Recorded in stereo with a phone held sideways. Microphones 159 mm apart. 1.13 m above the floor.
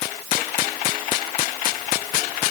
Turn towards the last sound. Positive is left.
No sound to turn to.